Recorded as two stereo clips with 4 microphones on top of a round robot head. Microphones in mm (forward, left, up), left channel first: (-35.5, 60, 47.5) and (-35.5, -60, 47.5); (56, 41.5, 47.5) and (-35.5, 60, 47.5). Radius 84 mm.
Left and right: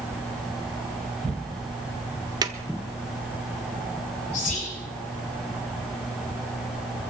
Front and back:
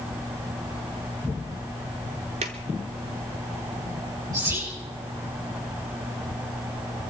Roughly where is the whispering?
Behind left.